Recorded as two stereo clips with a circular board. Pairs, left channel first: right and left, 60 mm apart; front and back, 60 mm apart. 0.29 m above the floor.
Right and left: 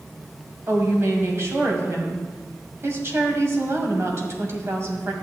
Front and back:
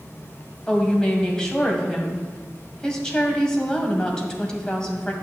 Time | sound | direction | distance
0.7 | a woman speaking | 75° left | 1.6 m